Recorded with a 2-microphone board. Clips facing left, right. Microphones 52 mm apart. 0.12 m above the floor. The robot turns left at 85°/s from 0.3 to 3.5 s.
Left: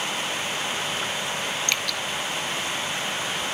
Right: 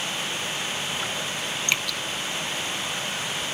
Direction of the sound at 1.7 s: 20° right (ahead or behind).